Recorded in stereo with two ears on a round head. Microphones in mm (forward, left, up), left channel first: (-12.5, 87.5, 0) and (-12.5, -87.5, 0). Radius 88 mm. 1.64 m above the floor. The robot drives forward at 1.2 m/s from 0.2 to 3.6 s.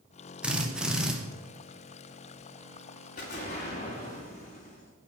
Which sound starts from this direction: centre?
A drill, at 0.4 s.